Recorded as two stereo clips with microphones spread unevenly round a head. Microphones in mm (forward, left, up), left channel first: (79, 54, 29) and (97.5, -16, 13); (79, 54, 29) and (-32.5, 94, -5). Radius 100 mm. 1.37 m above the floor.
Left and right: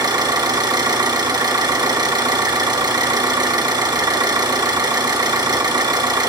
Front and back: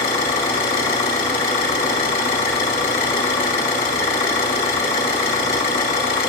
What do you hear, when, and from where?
0.0 s an engine running: 50° right, 2.5 m